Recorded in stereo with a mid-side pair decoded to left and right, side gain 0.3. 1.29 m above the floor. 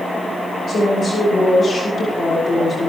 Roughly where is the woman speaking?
Ahead left.